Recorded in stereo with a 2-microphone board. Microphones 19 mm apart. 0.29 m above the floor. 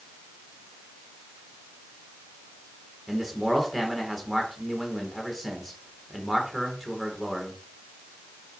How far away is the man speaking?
About 3.5 m.